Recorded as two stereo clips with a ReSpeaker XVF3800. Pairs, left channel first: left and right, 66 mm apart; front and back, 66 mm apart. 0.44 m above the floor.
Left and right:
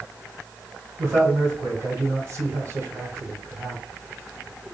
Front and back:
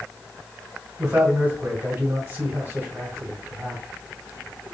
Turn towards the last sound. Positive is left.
turn(degrees=-125)